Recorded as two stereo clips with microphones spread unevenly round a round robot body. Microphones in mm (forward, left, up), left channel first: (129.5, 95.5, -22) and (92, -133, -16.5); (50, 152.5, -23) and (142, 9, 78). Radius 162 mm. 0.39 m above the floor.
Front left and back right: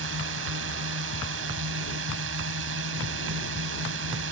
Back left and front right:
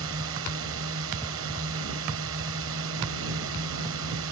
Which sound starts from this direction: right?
A drone, at 0.0 s.